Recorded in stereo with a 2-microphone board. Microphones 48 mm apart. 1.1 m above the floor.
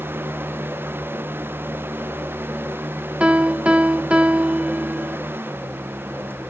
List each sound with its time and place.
3.2 s a piano: 25° right (ahead or behind), 1.0 m